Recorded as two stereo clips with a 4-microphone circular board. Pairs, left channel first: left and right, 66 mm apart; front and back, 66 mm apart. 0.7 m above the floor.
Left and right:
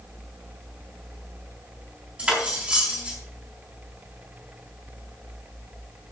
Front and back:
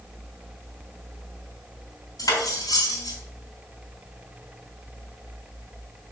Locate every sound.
2.2 s cutlery clinking: 20° right, 3.5 m